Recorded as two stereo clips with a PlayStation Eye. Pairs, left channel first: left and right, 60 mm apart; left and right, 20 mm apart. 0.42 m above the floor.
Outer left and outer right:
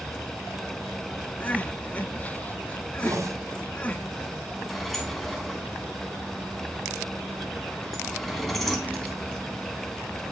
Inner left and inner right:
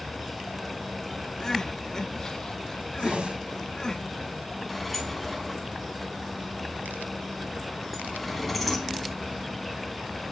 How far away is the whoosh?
About 1.6 m.